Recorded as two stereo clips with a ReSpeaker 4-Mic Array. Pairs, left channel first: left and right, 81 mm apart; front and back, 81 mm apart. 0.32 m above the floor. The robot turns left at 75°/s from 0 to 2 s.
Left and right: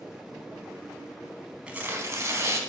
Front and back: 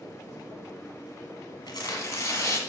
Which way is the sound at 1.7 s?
15° right.